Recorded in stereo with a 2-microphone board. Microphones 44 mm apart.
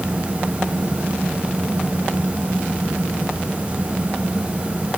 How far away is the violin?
No violin in this recording.